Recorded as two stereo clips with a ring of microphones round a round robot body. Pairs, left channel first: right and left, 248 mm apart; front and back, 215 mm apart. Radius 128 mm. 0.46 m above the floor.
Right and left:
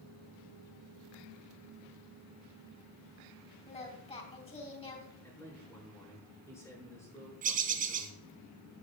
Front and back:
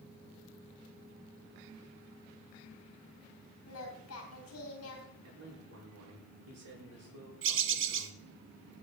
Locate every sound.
3.7 s singing: 25° right, 3.5 m
5.2 s a man speaking: 170° right, 6 m
7.4 s a bird: 150° left, 1.2 m